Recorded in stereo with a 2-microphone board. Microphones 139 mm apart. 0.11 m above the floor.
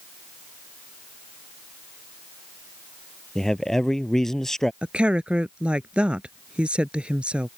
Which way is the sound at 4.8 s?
10° right (ahead or behind).